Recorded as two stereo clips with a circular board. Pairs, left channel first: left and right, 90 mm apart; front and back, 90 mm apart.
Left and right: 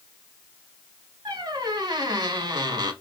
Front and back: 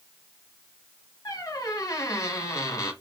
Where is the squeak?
50° right, 0.7 m.